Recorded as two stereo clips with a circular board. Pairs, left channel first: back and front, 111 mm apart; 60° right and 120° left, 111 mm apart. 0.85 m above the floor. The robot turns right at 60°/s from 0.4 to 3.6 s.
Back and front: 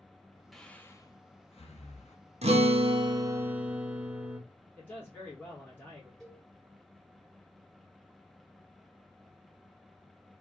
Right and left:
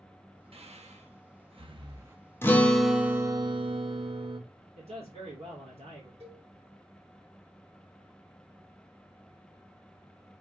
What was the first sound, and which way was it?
Breathing, 90° left.